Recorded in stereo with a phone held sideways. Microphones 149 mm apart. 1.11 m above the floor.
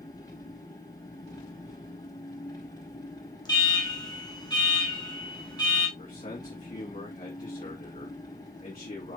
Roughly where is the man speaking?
Left.